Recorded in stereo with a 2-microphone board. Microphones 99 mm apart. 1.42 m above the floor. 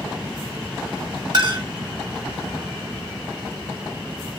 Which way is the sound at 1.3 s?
50° right (ahead or behind).